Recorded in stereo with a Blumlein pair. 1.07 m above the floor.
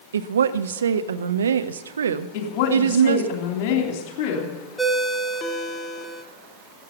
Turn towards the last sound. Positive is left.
turn(degrees=10)